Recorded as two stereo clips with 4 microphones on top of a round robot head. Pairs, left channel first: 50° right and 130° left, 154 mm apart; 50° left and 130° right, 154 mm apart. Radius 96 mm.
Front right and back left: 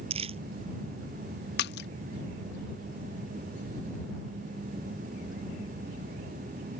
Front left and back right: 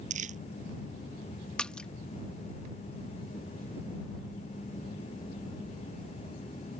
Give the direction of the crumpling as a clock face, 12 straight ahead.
6 o'clock.